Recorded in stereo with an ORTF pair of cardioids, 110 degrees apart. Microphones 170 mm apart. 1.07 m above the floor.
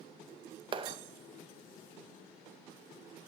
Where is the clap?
30° right, 0.5 m.